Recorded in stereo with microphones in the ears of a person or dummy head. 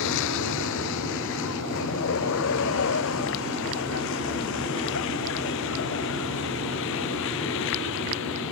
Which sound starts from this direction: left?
A vehicle, at 0.0 s.